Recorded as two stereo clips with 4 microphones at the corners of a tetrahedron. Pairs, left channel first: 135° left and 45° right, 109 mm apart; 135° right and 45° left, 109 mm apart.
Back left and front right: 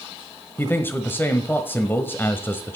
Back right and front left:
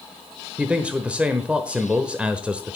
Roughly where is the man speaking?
Left.